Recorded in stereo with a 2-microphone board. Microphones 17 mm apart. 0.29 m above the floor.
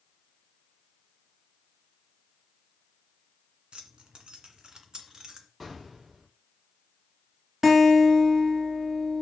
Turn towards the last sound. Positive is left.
turn(degrees=-25)  # may be behind; listen again after turning